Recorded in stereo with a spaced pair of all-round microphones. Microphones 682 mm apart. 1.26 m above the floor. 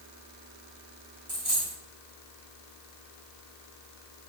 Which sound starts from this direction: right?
A dropped coin, at 1.3 s.